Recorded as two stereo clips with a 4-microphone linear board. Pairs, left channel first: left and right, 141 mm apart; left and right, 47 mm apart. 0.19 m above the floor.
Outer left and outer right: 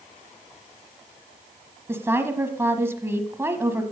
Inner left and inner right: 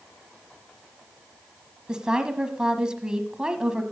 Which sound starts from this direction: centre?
A woman speaking, at 1.9 s.